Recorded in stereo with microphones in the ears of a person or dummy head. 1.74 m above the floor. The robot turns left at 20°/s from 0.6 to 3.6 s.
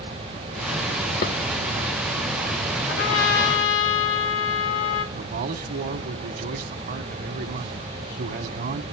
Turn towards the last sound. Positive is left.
turn(degrees=-55)  # may be behind; listen again after turning